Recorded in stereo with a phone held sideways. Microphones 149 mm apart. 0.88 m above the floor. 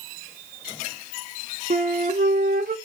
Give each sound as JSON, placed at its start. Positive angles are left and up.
{"t": 1.7, "sound": "a flute", "side_deg": -80, "distance_m": 1.8}